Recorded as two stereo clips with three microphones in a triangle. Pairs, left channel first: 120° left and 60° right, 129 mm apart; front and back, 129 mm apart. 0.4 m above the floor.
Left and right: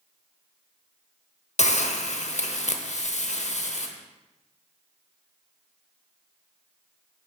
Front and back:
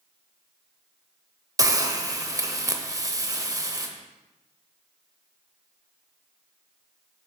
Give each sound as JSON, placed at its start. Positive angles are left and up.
{"t": 1.6, "sound": "a hiss", "azimuth_deg": 120, "distance_m": 0.6}